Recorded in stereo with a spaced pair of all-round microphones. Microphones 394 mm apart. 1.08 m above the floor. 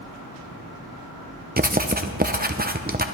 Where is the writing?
25° right (ahead or behind), 0.7 m.